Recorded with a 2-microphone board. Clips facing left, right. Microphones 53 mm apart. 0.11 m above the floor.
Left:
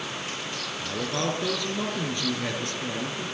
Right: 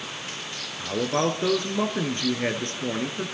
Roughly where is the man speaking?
Right.